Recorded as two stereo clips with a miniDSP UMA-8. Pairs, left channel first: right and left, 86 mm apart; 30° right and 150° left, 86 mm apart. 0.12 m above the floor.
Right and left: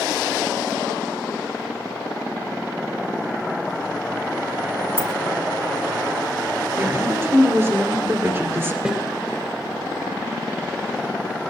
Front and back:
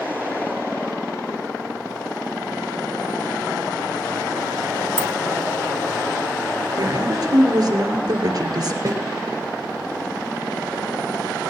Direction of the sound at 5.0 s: 145° left.